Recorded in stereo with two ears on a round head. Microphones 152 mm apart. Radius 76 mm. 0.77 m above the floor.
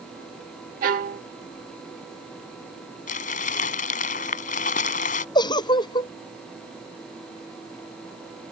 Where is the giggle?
25° left (ahead or behind).